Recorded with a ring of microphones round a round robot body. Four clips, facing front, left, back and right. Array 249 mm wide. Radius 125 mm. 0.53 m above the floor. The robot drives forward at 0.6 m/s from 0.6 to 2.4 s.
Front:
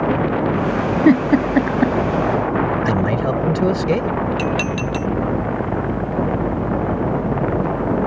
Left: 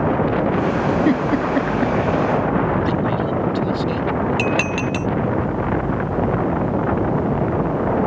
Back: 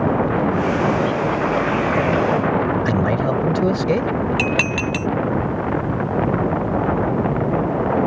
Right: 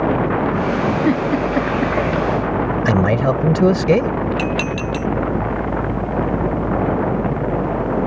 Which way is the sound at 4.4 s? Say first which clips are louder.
Left 1 dB, even; 160° left.